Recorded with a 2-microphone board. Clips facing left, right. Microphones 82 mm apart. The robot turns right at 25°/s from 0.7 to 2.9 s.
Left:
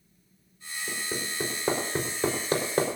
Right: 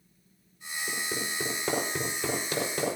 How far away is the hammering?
About 4.5 m.